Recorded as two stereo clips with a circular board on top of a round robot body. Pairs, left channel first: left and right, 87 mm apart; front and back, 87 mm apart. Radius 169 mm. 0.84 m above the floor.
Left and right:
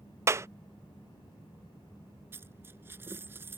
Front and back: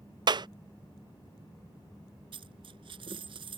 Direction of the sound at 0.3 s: 150° right.